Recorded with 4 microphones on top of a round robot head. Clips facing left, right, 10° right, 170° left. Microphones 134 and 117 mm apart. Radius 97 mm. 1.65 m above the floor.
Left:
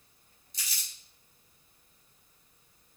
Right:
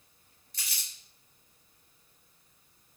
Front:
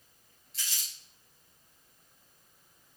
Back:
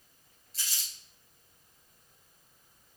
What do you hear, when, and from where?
0.5 s crumpling: 125° right, 4 m